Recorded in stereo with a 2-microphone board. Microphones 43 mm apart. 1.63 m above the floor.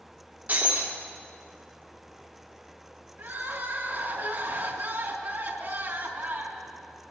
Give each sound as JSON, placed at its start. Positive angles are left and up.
{"t": 0.5, "sound": "breaking glass", "side_deg": -45, "distance_m": 2.5}
{"t": 3.2, "sound": "crying", "side_deg": -60, "distance_m": 3.0}